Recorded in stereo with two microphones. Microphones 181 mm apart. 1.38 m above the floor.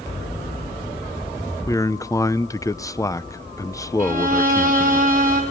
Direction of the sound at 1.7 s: 15° left (ahead or behind).